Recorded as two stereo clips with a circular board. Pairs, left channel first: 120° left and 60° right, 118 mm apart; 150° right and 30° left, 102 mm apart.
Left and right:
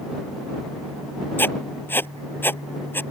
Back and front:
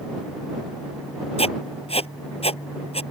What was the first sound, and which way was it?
Writing, 170° right.